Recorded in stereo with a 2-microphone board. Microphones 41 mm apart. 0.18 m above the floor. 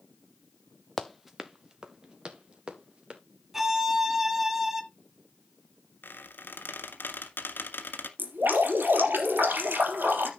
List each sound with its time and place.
1.0 s running footsteps: 5° left (ahead or behind), 0.9 m; by 3.2 s 25° right (ahead or behind), 3.5 m
3.5 s a violin: 10° right (ahead or behind), 1.4 m
6.0 s a squeak: 55° left (ahead or behind), 1.6 m
8.2 s dripping: 50° right (ahead or behind), 3.5 m